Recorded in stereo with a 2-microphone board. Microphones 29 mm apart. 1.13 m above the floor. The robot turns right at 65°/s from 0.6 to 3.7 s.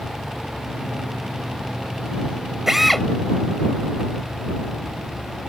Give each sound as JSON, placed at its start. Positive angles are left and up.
{"t": 2.7, "sound": "a drill", "side_deg": -10}